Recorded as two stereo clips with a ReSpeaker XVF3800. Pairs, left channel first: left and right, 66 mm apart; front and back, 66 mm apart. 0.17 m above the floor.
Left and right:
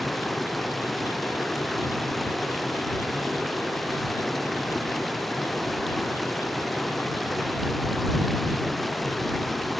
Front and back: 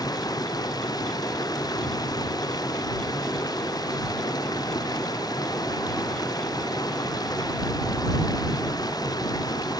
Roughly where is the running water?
Ahead.